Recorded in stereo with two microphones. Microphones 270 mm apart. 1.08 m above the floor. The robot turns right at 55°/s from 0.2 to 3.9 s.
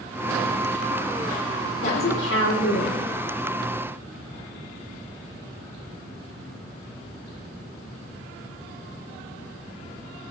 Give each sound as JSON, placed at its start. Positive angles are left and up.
{"t": 1.8, "sound": "a woman speaking", "azimuth_deg": 40, "distance_m": 3.0}